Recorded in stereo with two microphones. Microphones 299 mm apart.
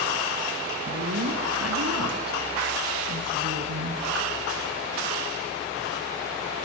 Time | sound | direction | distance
0.9 | a woman speaking | 60° right (ahead or behind) | 2.5 m